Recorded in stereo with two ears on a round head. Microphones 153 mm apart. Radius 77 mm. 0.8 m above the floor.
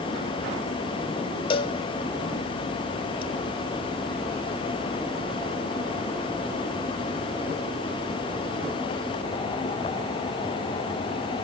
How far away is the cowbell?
About 1.4 m.